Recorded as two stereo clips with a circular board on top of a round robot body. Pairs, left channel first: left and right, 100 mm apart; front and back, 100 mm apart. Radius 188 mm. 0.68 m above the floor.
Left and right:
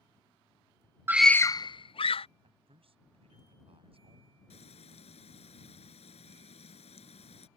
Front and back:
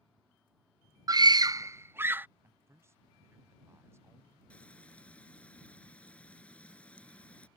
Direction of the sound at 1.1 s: 150° right.